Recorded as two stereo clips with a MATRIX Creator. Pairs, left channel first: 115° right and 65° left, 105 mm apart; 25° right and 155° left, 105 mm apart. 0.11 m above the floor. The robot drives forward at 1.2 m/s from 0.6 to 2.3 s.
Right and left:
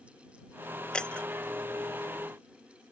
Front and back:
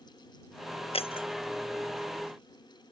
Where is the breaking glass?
30° right; by 1.3 s 35° right.